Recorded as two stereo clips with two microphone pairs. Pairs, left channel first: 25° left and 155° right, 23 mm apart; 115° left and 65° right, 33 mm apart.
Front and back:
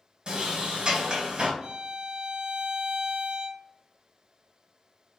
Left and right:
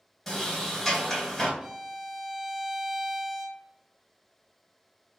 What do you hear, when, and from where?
0.3 s a sliding door: 160° right, 1.8 m
1.6 s a violin: 130° right, 0.6 m